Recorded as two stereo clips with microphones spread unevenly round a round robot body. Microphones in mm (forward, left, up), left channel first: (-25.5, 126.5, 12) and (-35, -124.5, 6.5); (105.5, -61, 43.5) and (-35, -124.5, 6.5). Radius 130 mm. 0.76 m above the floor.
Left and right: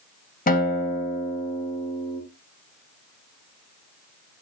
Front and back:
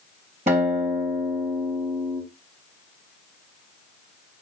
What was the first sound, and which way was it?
A guitar, 145° left.